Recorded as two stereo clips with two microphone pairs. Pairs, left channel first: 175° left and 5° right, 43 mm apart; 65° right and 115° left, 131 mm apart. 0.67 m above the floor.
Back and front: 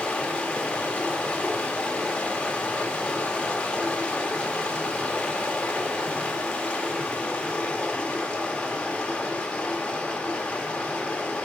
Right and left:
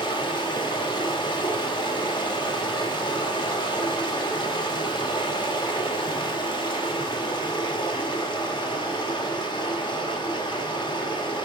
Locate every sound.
0.0 s running water: 120° right, 1.3 m